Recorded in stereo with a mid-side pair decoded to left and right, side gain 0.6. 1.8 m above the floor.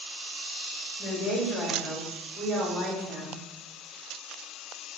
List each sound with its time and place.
1.0 s a woman speaking: 25° left, 1.5 m